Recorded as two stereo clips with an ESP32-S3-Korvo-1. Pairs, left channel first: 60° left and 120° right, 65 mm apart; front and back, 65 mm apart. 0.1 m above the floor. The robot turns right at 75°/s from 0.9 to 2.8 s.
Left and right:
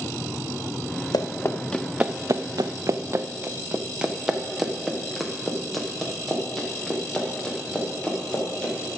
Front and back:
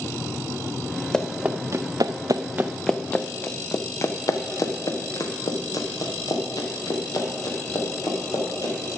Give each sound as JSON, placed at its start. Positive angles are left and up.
{"t": 1.1, "sound": "running footsteps", "azimuth_deg": 80, "distance_m": 1.0}